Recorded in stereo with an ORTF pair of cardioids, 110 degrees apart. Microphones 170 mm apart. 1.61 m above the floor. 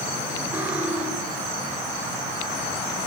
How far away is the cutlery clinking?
About 6.5 m.